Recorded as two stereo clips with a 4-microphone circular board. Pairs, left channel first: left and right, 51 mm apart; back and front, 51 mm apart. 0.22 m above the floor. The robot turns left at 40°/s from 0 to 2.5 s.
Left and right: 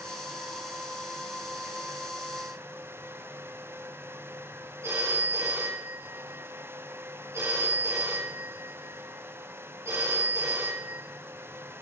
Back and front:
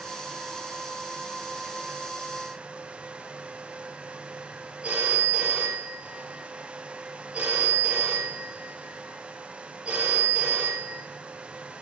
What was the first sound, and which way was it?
A phone ringing, 70° right.